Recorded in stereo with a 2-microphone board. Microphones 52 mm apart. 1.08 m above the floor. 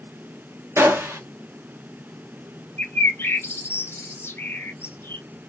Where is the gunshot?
60° right (ahead or behind), 1.2 m.